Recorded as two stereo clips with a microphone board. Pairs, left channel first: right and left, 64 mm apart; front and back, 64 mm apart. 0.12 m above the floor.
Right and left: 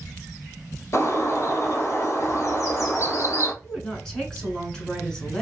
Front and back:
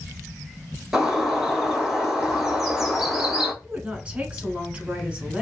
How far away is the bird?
About 1.0 m.